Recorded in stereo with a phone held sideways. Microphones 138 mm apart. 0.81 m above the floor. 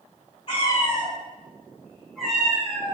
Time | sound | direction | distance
0.5 | a cat meowing | 45° left (ahead or behind) | 1.6 m